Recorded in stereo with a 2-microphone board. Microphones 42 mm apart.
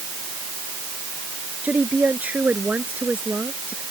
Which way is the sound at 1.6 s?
35° right (ahead or behind).